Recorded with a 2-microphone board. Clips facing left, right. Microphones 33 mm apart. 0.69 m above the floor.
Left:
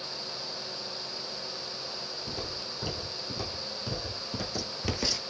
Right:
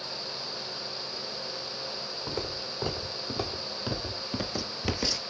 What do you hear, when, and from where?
2.3 s footsteps: 50° right (ahead or behind), 2 m; by 5.2 s centre (ahead or behind), 0.7 m